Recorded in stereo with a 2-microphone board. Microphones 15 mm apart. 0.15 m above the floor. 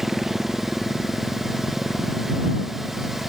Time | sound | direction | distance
0.0 | a motorcycle | 25° right (ahead or behind) | ?